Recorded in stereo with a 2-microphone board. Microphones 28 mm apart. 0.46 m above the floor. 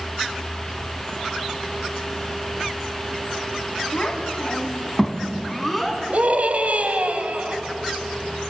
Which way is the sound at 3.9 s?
40° left (ahead or behind).